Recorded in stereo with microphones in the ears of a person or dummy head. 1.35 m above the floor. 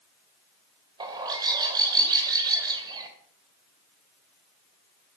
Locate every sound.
1.0 s a bird: 20° right (ahead or behind), 2 m